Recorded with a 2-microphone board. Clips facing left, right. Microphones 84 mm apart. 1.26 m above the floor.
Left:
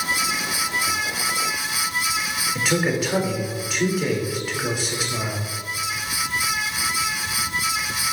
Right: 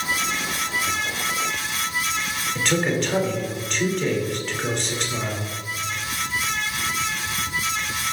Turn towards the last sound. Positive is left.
turn(degrees=5)  # may be behind; listen again after turning